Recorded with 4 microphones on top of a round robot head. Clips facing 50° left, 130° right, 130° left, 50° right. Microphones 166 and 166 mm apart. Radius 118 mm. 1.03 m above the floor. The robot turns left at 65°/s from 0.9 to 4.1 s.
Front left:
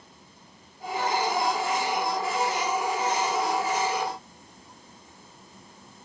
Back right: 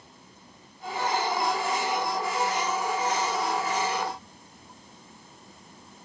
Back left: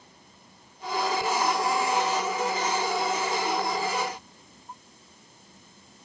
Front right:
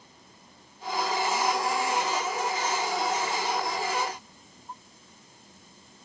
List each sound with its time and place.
Only background noise.